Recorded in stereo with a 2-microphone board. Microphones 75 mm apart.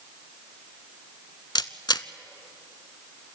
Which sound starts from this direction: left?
A camera shutter, at 1.6 s.